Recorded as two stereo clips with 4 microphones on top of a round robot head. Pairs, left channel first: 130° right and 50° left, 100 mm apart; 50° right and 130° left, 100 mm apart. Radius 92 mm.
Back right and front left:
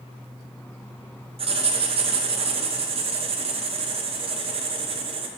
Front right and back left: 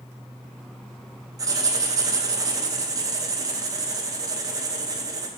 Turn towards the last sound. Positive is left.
turn(degrees=75)